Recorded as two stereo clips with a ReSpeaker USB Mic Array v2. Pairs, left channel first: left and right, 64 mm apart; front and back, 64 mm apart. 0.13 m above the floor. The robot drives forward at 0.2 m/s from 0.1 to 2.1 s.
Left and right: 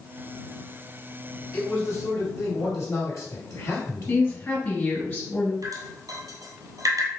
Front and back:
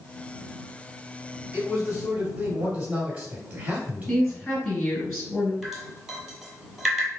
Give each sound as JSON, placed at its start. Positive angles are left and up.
{"t": 1.5, "sound": "a man speaking", "azimuth_deg": 115, "distance_m": 2.0}
{"t": 4.1, "sound": "a woman speaking", "azimuth_deg": 80, "distance_m": 1.8}
{"t": 5.6, "sound": "dripping", "azimuth_deg": -95, "distance_m": 0.9}